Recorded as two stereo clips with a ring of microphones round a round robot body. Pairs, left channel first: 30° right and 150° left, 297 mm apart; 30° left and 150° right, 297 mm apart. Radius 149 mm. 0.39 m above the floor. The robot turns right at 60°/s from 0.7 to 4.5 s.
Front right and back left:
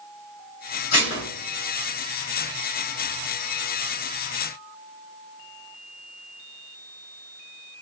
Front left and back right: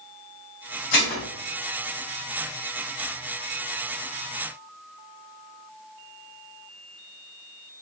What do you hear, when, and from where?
0.9 s dishes clattering: 5° left, 1.9 m; by 1.2 s 25° left, 1.9 m